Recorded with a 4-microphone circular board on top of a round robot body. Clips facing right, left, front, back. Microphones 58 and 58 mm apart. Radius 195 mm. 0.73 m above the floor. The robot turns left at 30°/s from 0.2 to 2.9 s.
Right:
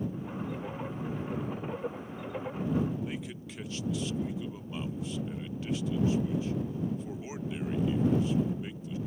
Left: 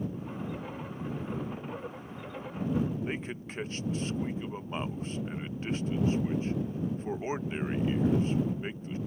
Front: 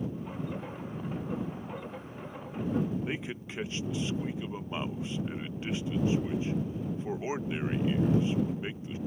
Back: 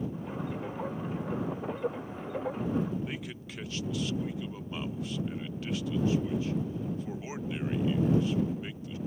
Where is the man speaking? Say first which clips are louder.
Left 3 dB, front 3 dB; 55° left.